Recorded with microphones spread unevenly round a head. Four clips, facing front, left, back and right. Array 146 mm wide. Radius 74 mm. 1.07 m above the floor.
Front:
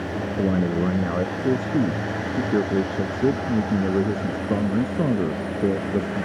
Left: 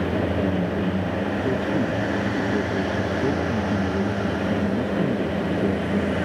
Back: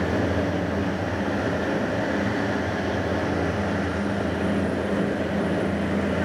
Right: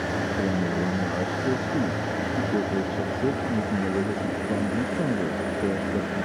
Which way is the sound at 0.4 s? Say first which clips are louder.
Left 2 dB, front 3 dB; 5° right.